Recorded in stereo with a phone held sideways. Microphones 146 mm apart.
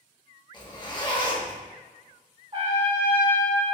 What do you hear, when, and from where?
0.5 s a zipper: 30° left (ahead or behind), 0.8 m
2.5 s a trumpet: 45° right (ahead or behind), 1.3 m